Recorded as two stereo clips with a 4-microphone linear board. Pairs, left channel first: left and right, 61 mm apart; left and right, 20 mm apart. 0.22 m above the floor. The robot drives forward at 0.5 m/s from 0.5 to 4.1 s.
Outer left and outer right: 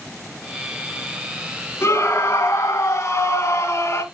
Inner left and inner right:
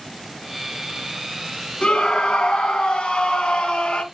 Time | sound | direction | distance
1.8 | a scream | 55° left (ahead or behind) | 2 m